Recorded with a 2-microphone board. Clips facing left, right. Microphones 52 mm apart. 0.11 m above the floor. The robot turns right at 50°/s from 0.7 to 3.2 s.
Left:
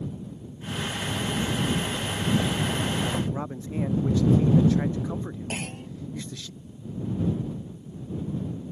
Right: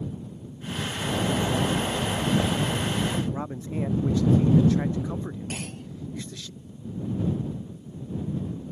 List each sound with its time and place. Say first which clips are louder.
1.0 s a bird: right 5 dB; 95° right; by 3.2 s 15° left
3.3 s a man speaking: even; centre (ahead or behind)
5.5 s a clunk: left 2 dB; 30° left (ahead or behind)